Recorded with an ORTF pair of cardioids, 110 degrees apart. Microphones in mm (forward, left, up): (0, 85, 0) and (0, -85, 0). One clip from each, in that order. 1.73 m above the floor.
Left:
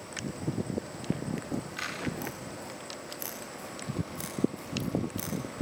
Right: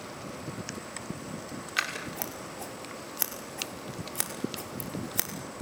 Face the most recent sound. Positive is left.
turn(degrees=-70)